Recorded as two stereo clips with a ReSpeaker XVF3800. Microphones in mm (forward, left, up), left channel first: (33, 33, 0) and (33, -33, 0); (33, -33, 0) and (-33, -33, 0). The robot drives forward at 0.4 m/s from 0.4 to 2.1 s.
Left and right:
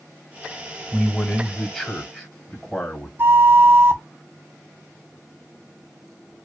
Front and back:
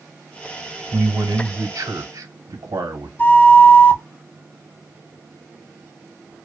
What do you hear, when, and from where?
0.9 s a man speaking: 160° left, 1.2 m; by 3.1 s 165° left, 1.7 m
3.2 s a flute: 50° right, 0.6 m